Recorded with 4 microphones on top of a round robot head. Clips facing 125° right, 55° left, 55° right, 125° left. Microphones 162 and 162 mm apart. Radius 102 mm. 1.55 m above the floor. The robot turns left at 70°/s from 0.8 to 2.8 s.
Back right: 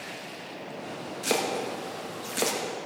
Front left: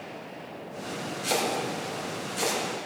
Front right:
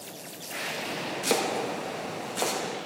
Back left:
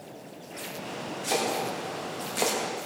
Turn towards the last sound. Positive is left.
turn(degrees=175)